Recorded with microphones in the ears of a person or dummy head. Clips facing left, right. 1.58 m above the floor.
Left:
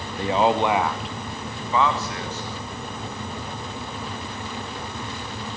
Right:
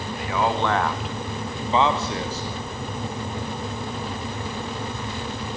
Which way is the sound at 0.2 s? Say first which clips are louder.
Left 4 dB; 30° left (ahead or behind).